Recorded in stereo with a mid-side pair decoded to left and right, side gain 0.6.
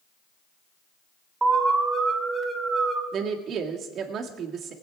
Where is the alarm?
25° right, 2.5 m.